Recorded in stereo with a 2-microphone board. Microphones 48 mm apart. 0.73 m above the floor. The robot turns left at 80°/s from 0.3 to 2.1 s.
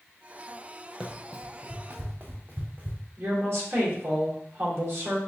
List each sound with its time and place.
1.0 s running footsteps: 10° right (ahead or behind), 1.0 m; by 3.0 s 40° right (ahead or behind), 1.8 m
3.2 s a woman speaking: 65° right (ahead or behind), 2.5 m